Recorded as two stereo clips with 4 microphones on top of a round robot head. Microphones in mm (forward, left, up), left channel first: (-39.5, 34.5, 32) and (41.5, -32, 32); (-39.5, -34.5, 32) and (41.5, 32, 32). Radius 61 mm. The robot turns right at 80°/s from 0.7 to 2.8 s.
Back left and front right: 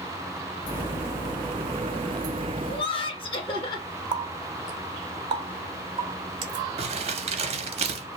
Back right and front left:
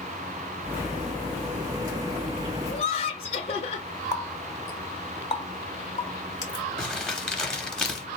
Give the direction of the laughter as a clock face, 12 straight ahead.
6 o'clock.